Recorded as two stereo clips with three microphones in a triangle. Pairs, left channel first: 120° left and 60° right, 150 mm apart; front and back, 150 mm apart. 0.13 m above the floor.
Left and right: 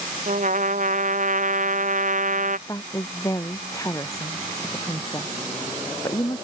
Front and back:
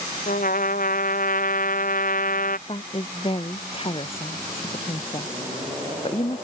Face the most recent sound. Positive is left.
turn(degrees=50)